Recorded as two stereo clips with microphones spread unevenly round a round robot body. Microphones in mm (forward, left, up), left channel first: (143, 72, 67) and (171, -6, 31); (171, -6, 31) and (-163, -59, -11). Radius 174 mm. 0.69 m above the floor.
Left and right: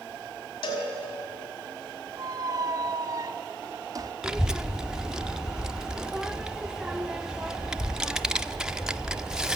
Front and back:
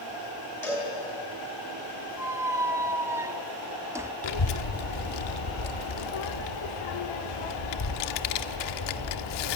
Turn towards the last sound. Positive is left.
turn(degrees=5)